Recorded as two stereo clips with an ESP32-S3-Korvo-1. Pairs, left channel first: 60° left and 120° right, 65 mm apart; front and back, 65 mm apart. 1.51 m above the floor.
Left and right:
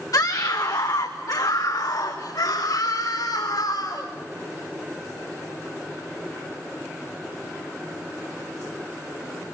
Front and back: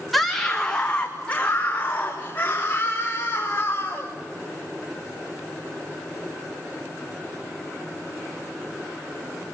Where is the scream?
90° left, 1.3 m; by 4.1 s 55° left, 5 m.